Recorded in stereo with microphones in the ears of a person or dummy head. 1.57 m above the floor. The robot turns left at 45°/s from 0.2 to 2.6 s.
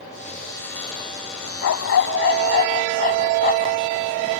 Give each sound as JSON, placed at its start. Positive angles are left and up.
{"t": 1.6, "sound": "a dog barking", "azimuth_deg": 90}